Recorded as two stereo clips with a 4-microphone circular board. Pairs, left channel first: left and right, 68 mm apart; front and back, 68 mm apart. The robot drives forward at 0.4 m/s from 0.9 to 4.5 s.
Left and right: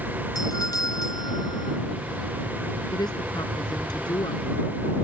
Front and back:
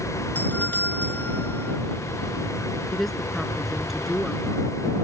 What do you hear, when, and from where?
0.3 s a doorbell: 65° left
2.9 s a woman speaking: 90° left; by 4.7 s 95° left